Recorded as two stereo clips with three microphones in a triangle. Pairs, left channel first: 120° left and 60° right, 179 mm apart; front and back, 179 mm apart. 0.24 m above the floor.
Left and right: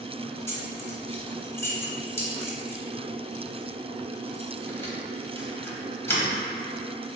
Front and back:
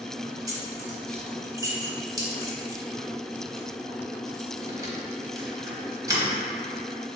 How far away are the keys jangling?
About 0.9 m.